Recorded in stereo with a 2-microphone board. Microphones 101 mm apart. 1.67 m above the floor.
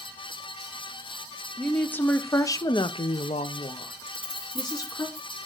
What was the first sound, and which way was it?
A woman speaking, 10° left (ahead or behind).